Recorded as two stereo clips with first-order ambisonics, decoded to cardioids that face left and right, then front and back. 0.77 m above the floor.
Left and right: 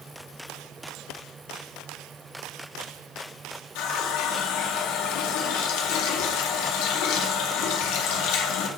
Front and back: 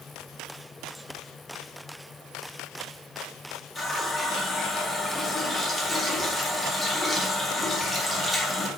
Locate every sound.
3.8 s a running tap: 80° left, 0.7 m